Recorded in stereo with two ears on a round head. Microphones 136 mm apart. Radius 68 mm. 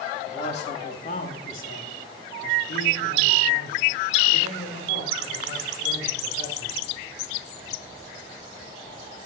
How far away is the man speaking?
About 3 m.